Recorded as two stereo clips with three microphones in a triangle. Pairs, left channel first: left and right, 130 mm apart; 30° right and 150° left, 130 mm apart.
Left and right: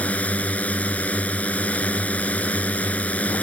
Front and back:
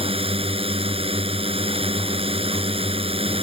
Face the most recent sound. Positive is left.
turn(degrees=165)